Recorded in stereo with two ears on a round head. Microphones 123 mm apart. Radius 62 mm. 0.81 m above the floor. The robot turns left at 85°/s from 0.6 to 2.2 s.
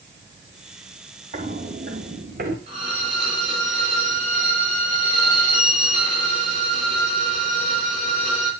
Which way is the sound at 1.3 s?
40° right (ahead or behind).